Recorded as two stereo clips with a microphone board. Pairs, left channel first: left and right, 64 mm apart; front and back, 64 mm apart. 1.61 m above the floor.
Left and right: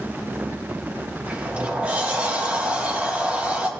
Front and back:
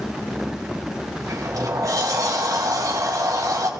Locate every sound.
1.3 s a sliding door: 160° right, 2 m